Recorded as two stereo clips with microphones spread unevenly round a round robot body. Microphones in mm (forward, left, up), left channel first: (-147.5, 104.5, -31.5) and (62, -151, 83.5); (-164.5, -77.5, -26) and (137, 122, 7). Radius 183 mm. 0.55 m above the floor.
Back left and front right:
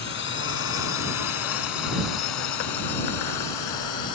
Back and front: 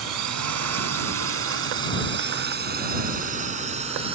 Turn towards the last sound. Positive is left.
turn(degrees=110)